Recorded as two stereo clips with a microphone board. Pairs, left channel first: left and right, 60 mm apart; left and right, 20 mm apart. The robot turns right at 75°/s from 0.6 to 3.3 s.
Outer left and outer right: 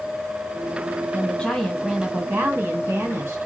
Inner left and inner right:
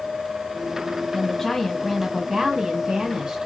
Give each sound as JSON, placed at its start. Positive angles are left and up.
{"t": 1.1, "sound": "a woman speaking", "azimuth_deg": 140, "distance_m": 2.0}